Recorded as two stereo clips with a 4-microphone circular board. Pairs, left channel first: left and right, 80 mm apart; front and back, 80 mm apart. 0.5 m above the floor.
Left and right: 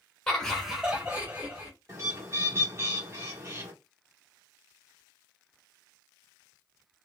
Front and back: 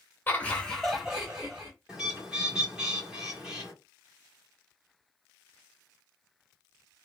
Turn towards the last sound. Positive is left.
turn(degrees=-105)